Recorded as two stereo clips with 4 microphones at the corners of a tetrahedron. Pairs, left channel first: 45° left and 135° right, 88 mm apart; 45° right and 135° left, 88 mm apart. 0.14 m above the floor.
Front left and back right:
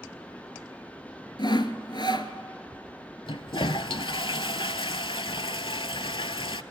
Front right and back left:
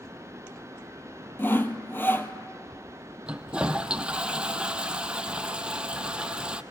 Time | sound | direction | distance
1.4 | sawing | 20° left | 0.9 m
3.3 | a toilet flushing | 55° left | 0.5 m